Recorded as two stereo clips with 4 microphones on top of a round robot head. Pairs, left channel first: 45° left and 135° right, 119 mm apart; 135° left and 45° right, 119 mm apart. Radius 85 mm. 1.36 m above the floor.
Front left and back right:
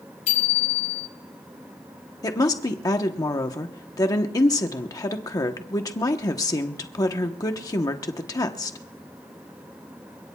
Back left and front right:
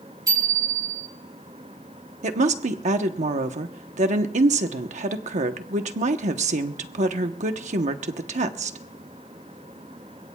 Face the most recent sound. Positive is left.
turn(degrees=-15)